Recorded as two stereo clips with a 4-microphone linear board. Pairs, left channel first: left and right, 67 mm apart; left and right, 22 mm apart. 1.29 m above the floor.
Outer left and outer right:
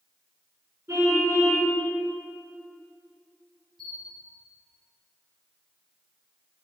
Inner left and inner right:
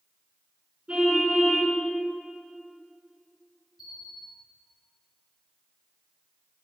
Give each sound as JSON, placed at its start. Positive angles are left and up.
{"t": 0.9, "sound": "a car horn", "side_deg": -50, "distance_m": 6.5}
{"t": 3.8, "sound": "a bell", "side_deg": -5, "distance_m": 7.0}